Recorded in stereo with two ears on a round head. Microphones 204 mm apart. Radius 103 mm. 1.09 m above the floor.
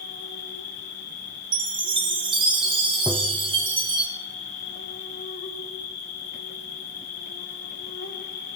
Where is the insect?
75° left (ahead or behind), 3.5 m.